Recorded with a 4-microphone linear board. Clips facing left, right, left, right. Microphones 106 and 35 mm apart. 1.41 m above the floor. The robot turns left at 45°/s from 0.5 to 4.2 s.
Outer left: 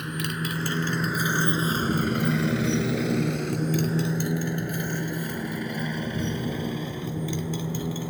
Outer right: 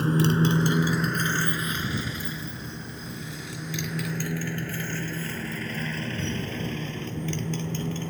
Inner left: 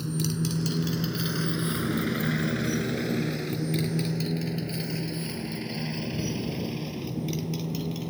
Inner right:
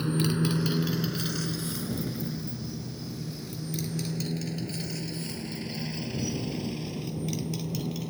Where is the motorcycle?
35° right (ahead or behind); by 8.1 s 10° left (ahead or behind).